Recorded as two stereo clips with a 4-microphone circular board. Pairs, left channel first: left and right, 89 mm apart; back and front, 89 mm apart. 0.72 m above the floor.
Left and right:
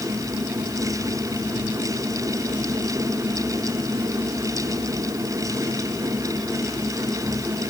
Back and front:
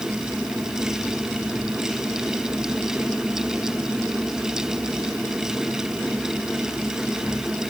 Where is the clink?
No clink in this recording.